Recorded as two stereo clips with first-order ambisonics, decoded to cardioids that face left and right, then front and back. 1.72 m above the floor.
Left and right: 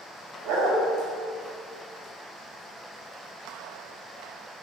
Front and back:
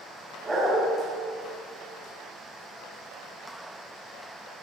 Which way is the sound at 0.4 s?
95° right.